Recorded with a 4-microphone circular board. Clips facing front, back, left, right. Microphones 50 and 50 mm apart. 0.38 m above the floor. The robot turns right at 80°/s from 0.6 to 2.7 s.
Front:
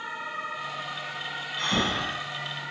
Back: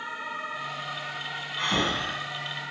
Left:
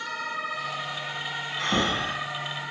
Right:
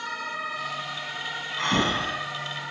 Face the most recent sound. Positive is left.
turn(degrees=-20)